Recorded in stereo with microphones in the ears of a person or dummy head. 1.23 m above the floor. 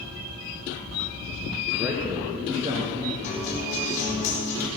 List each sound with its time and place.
1.7 s a man speaking: 5° right (ahead or behind), 1.1 m; by 3.1 s 25° right (ahead or behind), 2 m
3.2 s a guitar: 40° left (ahead or behind), 4 m